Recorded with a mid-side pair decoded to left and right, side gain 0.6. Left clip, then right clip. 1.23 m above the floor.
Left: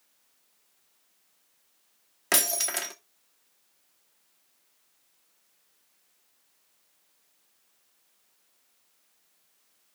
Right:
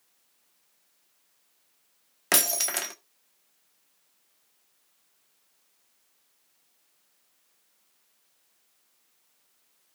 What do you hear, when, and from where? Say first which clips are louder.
2.3 s breaking glass: right 1 dB; 15° right, 1.2 m